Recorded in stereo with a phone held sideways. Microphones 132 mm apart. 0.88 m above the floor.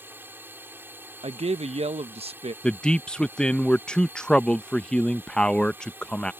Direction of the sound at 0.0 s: 15° right (ahead or behind).